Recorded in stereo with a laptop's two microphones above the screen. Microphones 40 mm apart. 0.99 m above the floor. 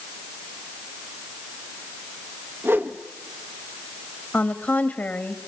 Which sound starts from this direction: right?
A whoosh, at 2.6 s.